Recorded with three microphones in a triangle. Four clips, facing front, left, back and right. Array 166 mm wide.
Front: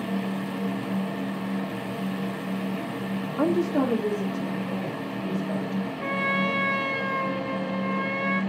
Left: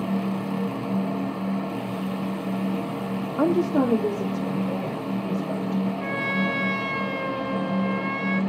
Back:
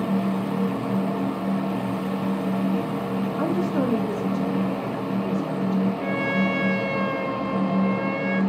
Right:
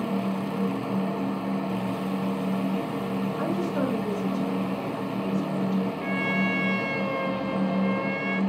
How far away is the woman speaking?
About 0.7 m.